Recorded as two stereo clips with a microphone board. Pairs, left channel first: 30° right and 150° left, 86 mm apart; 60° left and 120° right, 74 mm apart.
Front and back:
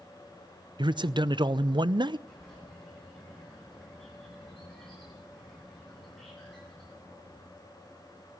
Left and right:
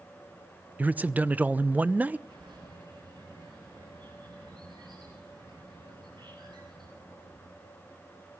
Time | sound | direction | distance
0.8 | a man speaking | 170° left | 0.5 m
2.3 | a bird | 120° right | 9.5 m